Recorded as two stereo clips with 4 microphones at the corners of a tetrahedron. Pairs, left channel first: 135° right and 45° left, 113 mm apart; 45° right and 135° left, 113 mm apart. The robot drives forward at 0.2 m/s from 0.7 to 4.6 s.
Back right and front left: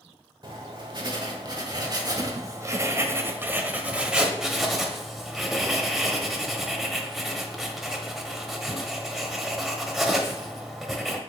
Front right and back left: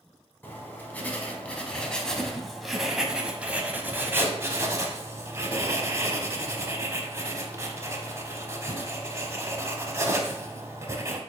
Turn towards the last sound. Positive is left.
turn(degrees=130)